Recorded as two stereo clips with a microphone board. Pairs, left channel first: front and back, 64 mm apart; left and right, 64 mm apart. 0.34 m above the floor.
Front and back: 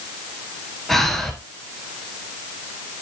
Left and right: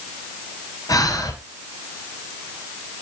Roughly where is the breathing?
Left.